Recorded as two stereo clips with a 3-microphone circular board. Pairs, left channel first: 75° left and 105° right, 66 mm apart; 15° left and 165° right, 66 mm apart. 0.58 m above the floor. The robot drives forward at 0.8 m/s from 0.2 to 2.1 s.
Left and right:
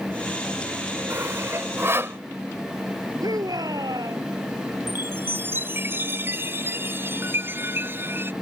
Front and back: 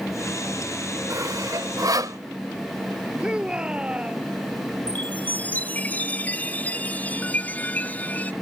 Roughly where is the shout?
Right.